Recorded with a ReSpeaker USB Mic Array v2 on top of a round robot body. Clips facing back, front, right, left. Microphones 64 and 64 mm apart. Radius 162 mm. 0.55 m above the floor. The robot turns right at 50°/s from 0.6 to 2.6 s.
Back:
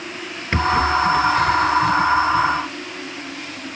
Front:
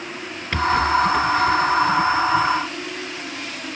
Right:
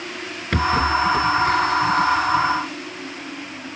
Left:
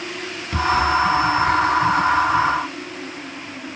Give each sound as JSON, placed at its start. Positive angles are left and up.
{"t": 0.5, "sound": "a rattle", "azimuth_deg": -115}